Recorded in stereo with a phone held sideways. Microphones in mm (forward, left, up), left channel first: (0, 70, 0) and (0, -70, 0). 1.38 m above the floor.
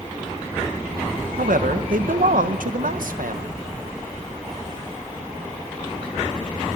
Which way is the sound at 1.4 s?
85° right.